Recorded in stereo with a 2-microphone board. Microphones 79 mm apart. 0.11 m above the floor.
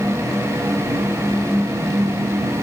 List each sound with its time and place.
Only background noise.